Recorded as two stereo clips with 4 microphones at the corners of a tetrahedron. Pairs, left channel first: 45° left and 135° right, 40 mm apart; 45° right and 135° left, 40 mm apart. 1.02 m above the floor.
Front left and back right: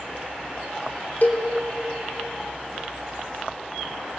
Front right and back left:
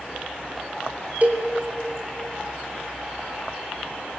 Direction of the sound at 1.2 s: 90° left.